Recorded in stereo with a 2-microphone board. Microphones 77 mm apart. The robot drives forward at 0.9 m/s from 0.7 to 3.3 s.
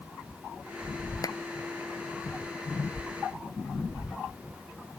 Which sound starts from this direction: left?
A clap, at 1.2 s.